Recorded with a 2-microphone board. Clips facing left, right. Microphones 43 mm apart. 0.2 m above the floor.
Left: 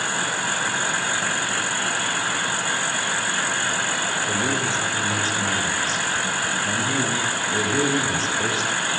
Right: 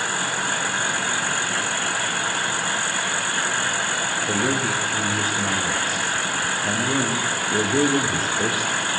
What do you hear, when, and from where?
4.3 s a man speaking: 20° right (ahead or behind), 5.5 m